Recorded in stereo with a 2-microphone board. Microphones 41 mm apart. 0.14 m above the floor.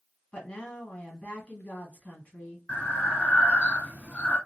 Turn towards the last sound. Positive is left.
turn(degrees=30)  # may be behind; listen again after turning